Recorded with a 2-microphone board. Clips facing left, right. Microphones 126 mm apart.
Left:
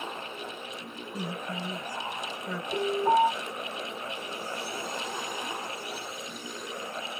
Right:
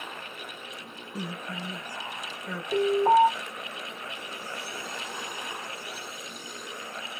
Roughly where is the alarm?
Right.